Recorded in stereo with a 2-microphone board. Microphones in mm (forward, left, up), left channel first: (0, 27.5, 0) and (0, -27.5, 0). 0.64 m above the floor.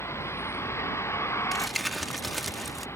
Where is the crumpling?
Centre (ahead or behind).